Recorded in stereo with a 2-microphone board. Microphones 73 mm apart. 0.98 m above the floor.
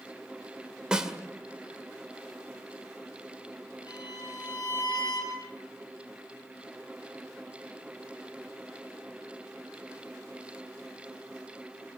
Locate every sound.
0.9 s a snare drum: 10° right (ahead or behind), 2 m
3.9 s a violin: 60° left (ahead or behind), 5.5 m